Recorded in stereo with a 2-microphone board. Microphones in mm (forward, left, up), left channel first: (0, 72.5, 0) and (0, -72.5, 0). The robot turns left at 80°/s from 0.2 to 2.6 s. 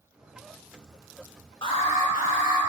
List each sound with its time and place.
1.6 s an alarm: 145° left, 1.6 m; by 2.6 s 65° left, 1.6 m